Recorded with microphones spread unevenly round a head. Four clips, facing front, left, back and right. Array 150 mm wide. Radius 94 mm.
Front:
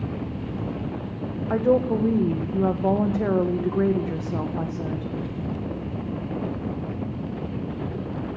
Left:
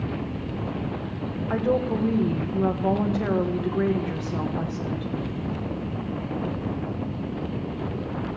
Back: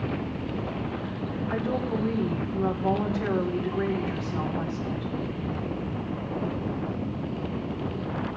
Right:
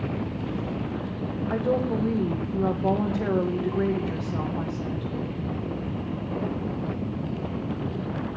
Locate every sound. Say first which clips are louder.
1.5 s a woman speaking: left 2 dB, front 9 dB; 5° left, 1.6 m